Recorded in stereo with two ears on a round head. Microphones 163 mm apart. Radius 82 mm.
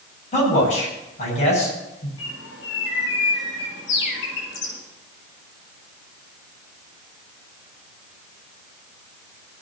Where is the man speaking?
40° left (ahead or behind), 7 m.